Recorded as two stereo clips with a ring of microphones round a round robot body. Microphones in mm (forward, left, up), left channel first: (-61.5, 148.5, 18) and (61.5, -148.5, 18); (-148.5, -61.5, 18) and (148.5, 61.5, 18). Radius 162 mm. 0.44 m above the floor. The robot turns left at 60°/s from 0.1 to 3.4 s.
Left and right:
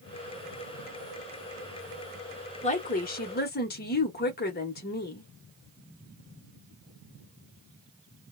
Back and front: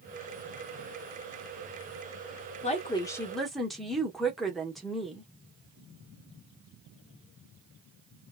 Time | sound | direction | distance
2.6 | a woman speaking | 160° left | 0.8 m